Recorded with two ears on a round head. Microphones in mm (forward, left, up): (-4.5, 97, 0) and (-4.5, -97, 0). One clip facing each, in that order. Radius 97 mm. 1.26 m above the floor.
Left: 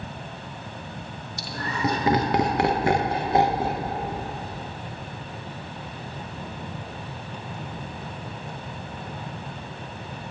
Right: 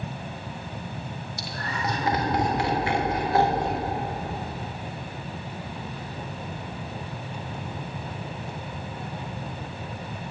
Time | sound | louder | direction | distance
1.4 | laughter | left 6 dB | 75° left (ahead or behind) | 1.5 m